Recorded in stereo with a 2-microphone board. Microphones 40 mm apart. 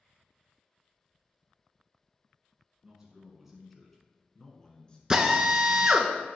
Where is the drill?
15° right (ahead or behind), 0.7 m.